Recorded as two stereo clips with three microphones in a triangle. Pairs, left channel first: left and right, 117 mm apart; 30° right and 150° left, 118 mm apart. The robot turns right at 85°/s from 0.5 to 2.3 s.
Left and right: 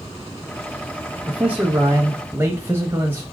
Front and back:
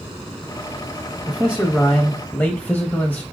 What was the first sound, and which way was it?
A man speaking, 160° right.